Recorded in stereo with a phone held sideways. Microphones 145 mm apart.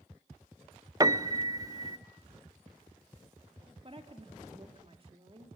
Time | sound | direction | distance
1.0 | a piano | 25° right (ahead or behind) | 0.5 m
3.8 | a woman speaking | 40° right (ahead or behind) | 2 m